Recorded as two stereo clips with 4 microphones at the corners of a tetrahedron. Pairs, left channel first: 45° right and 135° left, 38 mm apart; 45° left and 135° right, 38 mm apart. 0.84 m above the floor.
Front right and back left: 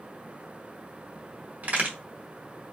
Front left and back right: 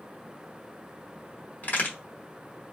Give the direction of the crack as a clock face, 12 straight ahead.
9 o'clock.